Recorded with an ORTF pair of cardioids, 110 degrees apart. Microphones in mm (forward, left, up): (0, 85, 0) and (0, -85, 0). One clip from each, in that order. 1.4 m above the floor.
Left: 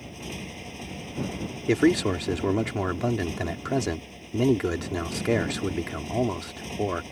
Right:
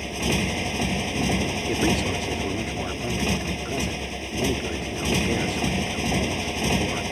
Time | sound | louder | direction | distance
0.0 | a motorcycle | right 13 dB | 70° right | ?
1.7 | a man speaking | left 4 dB | 40° left | ?